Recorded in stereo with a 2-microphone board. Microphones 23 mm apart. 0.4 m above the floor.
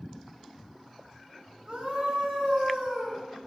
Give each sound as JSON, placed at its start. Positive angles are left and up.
{"t": 1.7, "sound": "a scream", "side_deg": -55, "distance_m": 2.0}